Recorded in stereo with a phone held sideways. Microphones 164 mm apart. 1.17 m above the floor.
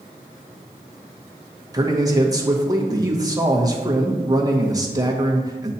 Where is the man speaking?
25° right (ahead or behind), 1.2 m.